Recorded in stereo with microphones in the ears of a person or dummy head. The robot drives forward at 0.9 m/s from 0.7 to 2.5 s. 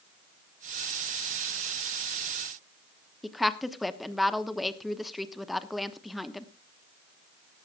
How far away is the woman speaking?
About 1.0 m.